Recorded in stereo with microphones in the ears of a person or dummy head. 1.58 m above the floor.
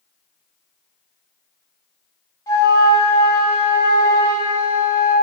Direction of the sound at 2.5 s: 25° left (ahead or behind).